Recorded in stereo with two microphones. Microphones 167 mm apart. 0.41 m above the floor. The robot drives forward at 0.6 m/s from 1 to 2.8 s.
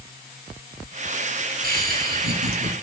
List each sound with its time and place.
1.6 s laughter: 60° right (ahead or behind), 3.5 m; by 2.7 s 65° right (ahead or behind), 3.5 m